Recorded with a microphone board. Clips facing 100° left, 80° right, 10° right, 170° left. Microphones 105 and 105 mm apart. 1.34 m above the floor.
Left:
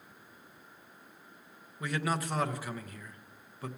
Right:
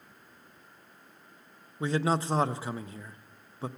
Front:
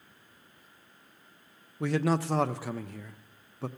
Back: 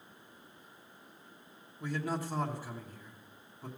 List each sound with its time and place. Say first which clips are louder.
1.8 s a man speaking: right 5 dB, front 8 dB; 15° right, 0.6 m